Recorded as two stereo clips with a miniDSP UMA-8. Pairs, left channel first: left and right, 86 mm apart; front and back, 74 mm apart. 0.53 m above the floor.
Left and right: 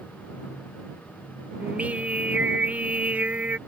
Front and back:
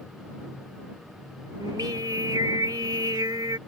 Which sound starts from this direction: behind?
Singing, at 1.6 s.